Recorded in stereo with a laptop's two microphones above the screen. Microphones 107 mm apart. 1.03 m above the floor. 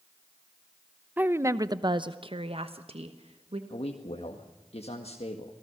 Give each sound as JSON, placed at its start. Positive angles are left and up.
{"t": 1.2, "sound": "a woman speaking", "side_deg": -15, "distance_m": 0.8}
{"t": 3.7, "sound": "a man speaking", "side_deg": 70, "distance_m": 1.8}